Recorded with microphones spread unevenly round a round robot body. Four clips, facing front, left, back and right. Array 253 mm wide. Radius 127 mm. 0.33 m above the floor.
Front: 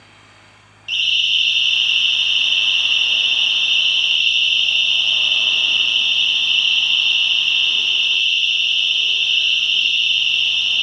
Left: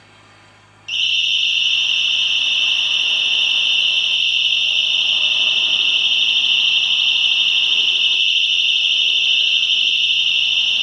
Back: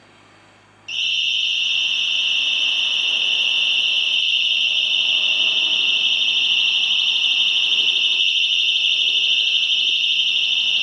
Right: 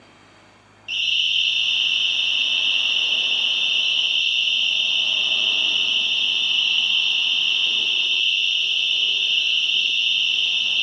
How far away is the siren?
About 7 m.